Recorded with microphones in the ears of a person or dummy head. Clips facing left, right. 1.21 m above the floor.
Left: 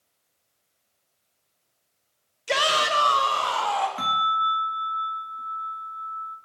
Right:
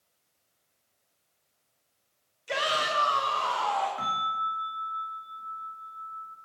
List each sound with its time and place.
2.5 s a shout: 70° left (ahead or behind), 1.4 m; by 3.9 s 55° left (ahead or behind), 2.5 m
4.0 s a bell: 40° left (ahead or behind), 1.7 m